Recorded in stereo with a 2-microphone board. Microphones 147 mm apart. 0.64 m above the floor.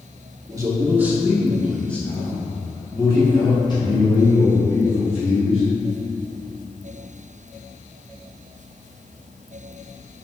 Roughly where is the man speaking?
Right.